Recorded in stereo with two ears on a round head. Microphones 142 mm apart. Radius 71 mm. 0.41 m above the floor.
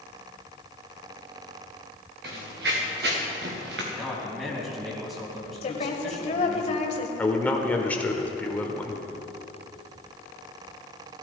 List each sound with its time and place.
2.2 s running footsteps: 70° right (ahead or behind), 3.5 m; by 3.8 s 80° right, 4.5 m
3.9 s a man speaking: centre (ahead or behind), 4 m
5.6 s a woman speaking: 40° left (ahead or behind), 1.6 m
7.2 s a man speaking: 10° left (ahead or behind), 1.4 m